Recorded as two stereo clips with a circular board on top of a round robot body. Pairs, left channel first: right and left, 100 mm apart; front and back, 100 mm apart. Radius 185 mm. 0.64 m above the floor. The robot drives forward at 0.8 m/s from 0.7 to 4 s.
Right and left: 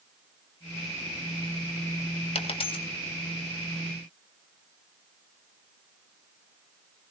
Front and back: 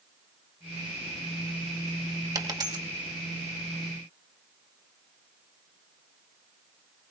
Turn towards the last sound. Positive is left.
turn(degrees=-140)